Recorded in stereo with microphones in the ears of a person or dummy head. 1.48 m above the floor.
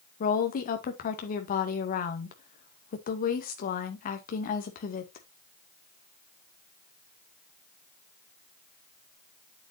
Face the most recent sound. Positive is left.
turn(degrees=45)  # may be behind; listen again after turning